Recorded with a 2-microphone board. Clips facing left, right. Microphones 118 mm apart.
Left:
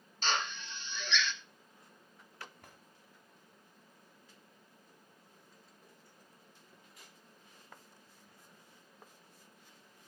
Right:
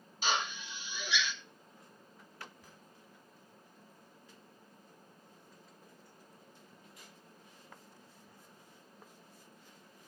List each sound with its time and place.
0.2 s a drill: 10° right (ahead or behind), 0.9 m
2.6 s a drawer: 60° left (ahead or behind), 2 m